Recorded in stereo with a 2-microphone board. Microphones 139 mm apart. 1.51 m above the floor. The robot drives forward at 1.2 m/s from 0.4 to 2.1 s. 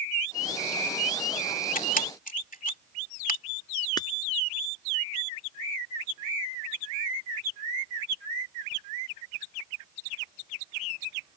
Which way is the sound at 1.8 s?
80° left.